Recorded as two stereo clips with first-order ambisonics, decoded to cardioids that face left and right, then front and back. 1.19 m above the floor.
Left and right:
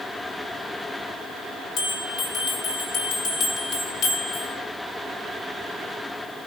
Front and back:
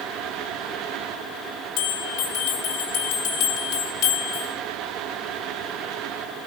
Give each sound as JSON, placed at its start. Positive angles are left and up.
{"t": 1.8, "sound": "a bell", "azimuth_deg": 40, "distance_m": 3.5}